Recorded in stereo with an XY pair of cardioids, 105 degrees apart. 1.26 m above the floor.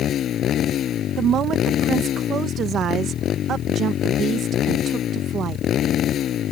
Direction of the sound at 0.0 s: 60° left.